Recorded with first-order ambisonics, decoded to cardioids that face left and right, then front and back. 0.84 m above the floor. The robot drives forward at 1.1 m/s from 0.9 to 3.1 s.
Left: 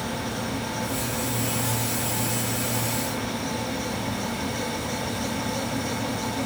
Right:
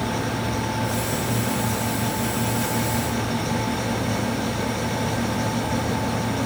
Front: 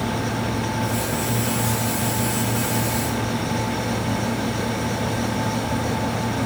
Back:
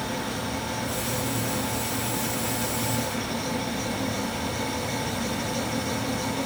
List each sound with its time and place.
Only background noise.